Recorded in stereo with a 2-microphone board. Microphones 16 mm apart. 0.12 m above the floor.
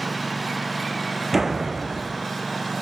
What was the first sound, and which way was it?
A lawn mower, centre (ahead or behind).